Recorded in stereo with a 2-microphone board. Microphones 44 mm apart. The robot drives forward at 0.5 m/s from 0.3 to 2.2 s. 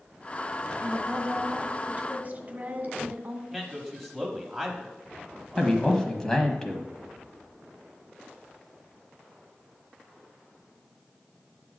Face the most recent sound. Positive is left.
turn(degrees=15)  # may be behind; listen again after turning